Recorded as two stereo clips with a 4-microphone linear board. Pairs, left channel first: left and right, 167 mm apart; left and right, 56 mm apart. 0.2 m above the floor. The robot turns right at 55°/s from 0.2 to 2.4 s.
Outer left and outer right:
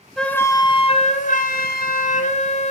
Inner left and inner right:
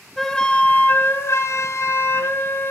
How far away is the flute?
About 1.6 m.